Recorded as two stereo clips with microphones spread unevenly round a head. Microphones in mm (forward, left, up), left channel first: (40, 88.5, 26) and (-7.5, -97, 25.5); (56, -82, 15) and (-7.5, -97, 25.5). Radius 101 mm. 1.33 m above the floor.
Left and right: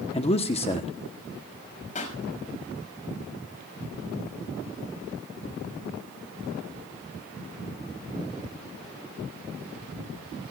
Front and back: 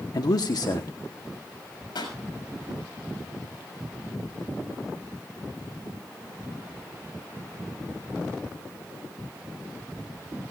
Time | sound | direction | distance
0.1 | a man speaking | 15° left | 1.1 m
1.9 | a pop | 25° left | 6.5 m